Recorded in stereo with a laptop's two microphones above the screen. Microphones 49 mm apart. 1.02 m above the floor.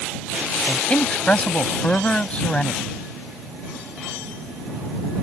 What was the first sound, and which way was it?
A man speaking, 25° left (ahead or behind).